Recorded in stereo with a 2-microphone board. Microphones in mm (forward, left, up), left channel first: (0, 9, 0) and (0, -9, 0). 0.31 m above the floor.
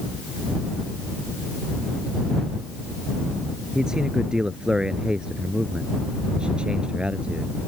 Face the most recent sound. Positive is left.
turn(degrees=-75)  # may be behind; listen again after turning